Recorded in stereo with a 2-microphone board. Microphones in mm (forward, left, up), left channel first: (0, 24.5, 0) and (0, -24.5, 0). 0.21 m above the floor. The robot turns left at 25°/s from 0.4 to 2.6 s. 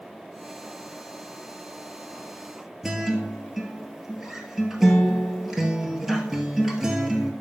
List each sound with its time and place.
2.8 s a guitar: 5° right (ahead or behind), 1.2 m